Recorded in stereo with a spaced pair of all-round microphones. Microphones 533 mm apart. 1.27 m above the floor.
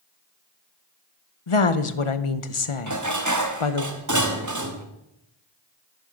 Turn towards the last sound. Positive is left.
turn(degrees=-35)  # may be behind; listen again after turning